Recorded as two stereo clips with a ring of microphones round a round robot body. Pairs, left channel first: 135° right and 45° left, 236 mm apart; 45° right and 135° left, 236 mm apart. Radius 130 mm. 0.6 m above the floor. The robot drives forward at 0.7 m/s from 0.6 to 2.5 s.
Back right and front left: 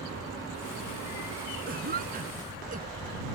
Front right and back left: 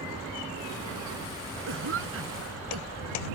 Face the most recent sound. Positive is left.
turn(degrees=100)